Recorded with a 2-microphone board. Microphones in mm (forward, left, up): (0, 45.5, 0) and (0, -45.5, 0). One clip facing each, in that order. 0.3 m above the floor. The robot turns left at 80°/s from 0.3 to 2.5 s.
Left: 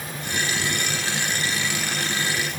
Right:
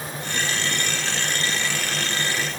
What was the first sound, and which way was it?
Only background noise.